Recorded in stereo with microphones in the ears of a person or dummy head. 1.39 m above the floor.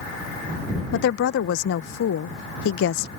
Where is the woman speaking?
65° left (ahead or behind).